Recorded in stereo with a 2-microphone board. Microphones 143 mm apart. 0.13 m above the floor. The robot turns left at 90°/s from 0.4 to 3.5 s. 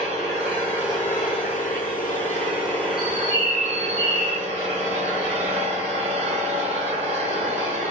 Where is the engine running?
135° right, 1.3 m; by 7.9 s 50° right, 1.3 m.